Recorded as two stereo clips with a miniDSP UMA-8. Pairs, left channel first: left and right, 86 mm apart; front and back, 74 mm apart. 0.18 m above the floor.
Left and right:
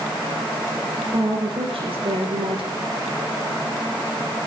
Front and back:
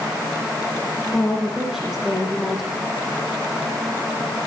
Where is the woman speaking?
95° right, 8.5 m.